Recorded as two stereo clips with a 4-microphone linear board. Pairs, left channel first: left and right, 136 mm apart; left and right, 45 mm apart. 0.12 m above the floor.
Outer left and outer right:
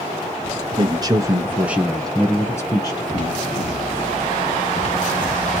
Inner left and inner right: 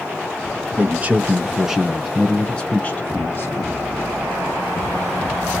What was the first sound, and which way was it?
A man speaking, 35° right (ahead or behind).